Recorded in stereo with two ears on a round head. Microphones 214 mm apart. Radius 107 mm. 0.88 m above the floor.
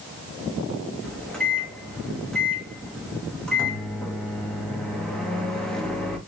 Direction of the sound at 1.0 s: 5° left (ahead or behind).